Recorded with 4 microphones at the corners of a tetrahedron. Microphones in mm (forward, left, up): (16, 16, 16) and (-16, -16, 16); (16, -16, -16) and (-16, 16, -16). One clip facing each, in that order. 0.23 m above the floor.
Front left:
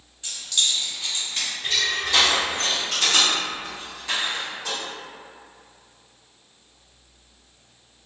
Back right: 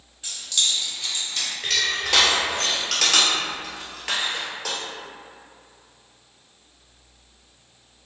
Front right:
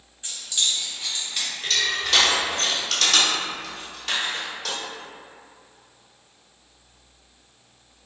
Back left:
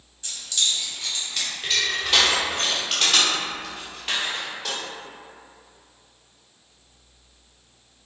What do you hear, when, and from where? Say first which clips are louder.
0.2 s keys jangling: even, even; 55° right, 1.0 m; by 1.5 s 35° left, 1.1 m
1.6 s crushing: even, even; 155° right, 1.0 m